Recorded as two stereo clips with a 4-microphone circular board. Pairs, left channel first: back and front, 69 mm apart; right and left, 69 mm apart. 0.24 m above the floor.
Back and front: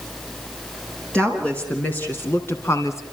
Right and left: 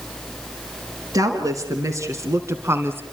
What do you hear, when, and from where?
1.1 s a woman speaking: 105° left, 2.5 m; by 3.0 s 145° left, 2 m